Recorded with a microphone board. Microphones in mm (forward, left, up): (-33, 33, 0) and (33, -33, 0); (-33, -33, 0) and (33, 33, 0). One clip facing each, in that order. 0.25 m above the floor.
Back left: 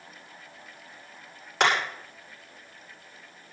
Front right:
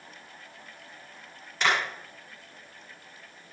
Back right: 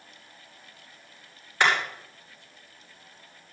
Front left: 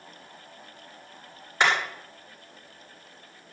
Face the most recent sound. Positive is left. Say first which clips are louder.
# back left 3 dB, even
turn(degrees=115)